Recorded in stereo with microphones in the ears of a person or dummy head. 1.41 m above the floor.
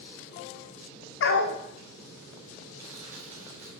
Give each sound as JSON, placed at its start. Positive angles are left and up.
{"t": 1.2, "sound": "a dog barking", "side_deg": 65, "distance_m": 1.6}
{"t": 2.8, "sound": "crushing", "side_deg": -35, "distance_m": 4.0}